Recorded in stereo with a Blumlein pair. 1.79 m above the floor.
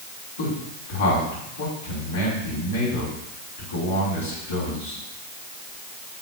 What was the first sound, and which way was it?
A man speaking, 60° left.